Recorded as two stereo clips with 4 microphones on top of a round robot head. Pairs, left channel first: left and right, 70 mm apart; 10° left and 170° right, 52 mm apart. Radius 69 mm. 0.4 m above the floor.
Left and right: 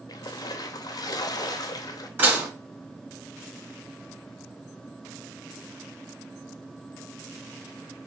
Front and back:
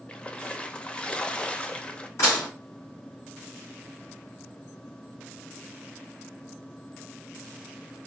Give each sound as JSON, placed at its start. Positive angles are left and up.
{"t": 0.1, "sound": "a splash", "azimuth_deg": 75, "distance_m": 0.6}
{"t": 2.2, "sound": "dishes clattering", "azimuth_deg": -30, "distance_m": 3.0}